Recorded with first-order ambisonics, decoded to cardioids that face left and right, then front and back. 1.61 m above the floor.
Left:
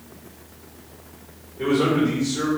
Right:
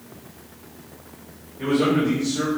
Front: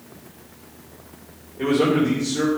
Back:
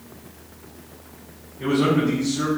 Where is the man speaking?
15° left, 4 m.